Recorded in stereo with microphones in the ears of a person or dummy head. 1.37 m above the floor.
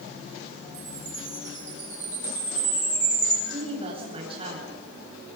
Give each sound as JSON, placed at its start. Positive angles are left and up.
{"t": 0.7, "sound": "a chime", "side_deg": -40, "distance_m": 8.5}
{"t": 3.5, "sound": "a woman speaking", "side_deg": -35, "distance_m": 9.0}